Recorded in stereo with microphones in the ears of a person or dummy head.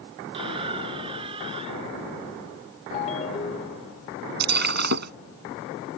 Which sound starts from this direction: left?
A ringtone, at 2.9 s.